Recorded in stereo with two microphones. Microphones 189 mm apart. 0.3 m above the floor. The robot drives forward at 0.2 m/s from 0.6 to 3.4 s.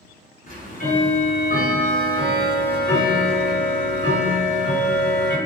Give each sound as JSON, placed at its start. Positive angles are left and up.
{"t": 0.5, "sound": "ticking", "side_deg": 45, "distance_m": 1.4}